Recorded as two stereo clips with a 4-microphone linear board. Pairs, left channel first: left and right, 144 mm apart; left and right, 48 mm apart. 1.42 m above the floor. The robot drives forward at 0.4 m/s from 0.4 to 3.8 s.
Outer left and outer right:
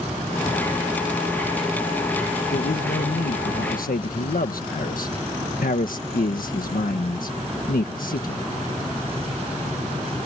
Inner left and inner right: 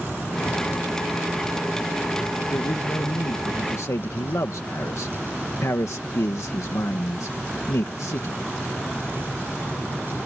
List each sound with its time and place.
2.5 s a man speaking: 80° left